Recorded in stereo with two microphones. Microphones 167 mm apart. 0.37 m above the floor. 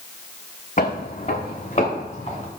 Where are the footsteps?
50° left (ahead or behind), 1.0 m; by 2.5 s 35° left (ahead or behind), 3 m.